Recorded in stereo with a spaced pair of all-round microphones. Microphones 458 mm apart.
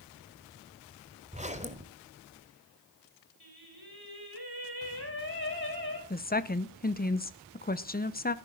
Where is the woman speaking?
20° left (ahead or behind), 0.8 m.